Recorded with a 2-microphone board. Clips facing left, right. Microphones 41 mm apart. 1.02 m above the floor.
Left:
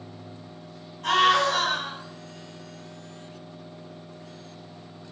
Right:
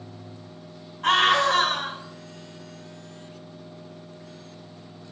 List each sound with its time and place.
1.0 s a scream: 35° right (ahead or behind), 1.9 m